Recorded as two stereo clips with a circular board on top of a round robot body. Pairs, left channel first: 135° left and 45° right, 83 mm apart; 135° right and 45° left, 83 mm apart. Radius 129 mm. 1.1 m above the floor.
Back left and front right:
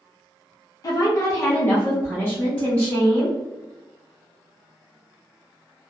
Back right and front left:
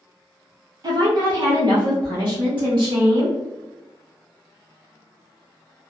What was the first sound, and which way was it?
A woman speaking, 85° left.